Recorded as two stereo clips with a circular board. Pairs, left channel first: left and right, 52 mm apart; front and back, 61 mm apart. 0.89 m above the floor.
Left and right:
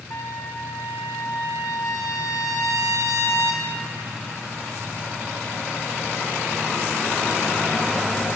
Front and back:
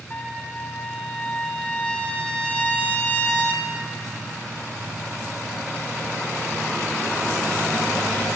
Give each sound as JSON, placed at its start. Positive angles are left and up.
{"t": 0.1, "sound": "a trumpet", "azimuth_deg": 70, "distance_m": 0.7}